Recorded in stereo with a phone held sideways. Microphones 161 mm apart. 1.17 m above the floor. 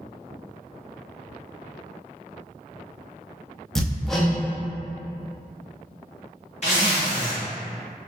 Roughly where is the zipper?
Left.